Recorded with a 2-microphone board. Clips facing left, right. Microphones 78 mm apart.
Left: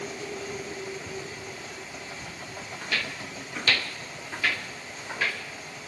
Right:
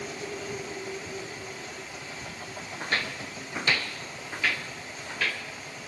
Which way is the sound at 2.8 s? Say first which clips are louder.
Right 2 dB; 40° right (ahead or behind).